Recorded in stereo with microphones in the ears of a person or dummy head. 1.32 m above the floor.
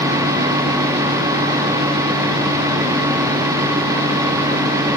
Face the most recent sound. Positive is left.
No sound to turn to.